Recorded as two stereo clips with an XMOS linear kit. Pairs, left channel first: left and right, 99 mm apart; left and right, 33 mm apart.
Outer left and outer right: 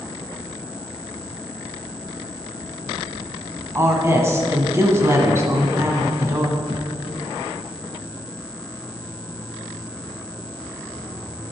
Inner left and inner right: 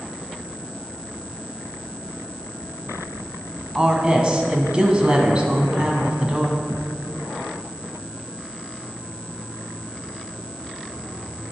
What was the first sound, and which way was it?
A woman speaking, 25° right (ahead or behind).